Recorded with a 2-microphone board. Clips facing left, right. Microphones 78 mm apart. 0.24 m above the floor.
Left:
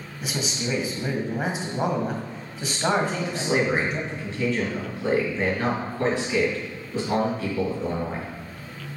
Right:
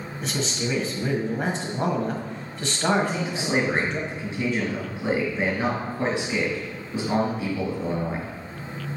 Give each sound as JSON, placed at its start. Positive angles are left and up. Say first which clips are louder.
{"t": 0.2, "sound": "a man speaking", "louder": "right 1 dB", "side_deg": 10, "distance_m": 1.3}
{"t": 3.0, "sound": "a man speaking", "louder": "even", "side_deg": -10, "distance_m": 3.5}